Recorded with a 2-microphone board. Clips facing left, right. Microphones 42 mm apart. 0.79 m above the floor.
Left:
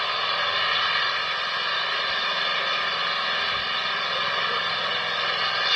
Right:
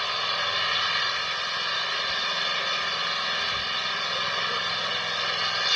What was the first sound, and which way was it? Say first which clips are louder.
An engine running: left 3 dB; 10° left (ahead or behind).